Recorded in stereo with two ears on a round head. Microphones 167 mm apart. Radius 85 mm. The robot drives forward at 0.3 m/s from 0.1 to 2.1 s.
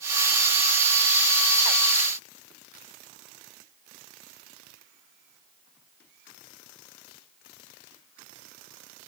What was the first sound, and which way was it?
Only background noise.